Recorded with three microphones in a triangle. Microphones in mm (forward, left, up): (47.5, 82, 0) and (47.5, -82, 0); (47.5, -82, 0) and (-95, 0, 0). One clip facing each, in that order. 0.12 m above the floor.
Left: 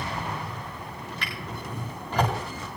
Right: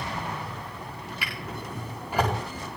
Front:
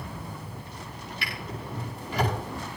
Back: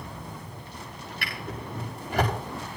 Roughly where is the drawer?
Behind.